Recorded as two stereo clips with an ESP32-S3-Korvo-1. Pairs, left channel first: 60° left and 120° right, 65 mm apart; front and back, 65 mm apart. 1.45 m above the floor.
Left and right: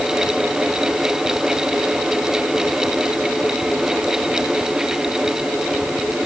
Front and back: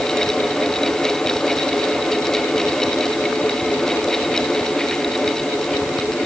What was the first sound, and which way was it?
Only background noise.